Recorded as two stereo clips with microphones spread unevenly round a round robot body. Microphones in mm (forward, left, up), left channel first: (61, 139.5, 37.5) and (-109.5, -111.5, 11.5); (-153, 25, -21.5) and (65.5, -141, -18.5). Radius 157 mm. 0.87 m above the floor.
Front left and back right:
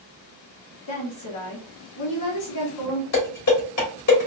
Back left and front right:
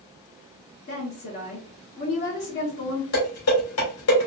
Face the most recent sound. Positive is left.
turn(degrees=95)